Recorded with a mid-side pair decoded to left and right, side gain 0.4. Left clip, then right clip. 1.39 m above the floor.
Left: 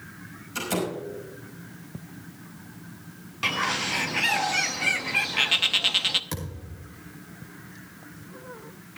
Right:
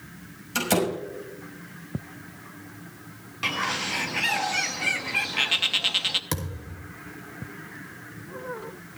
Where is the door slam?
65° right, 6 m.